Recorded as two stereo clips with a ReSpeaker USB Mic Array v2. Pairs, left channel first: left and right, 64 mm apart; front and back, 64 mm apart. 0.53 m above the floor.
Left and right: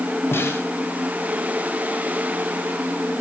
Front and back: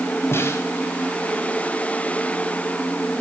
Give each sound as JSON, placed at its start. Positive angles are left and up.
{"t": 0.3, "sound": "a snare drum", "azimuth_deg": 45, "distance_m": 4.0}